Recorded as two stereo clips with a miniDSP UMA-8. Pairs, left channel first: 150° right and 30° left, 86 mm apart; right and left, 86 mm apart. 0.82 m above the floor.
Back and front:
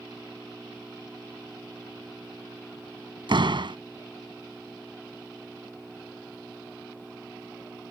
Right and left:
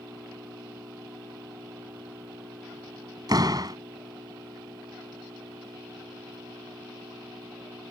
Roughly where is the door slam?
Ahead left.